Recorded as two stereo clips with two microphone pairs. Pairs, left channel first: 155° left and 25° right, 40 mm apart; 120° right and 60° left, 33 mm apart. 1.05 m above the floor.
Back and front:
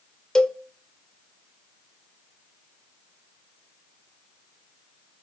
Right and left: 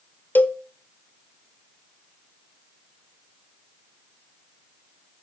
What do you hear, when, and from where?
0.3 s a cowbell: 130° right, 0.5 m